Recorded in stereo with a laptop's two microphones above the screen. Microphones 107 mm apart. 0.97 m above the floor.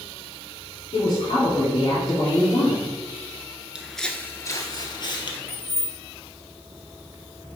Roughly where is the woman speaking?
Left.